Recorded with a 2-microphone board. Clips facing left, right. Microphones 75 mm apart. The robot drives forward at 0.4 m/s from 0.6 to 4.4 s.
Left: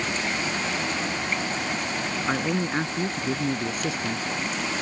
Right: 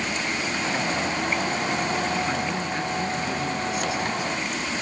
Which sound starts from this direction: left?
A man speaking, at 2.3 s.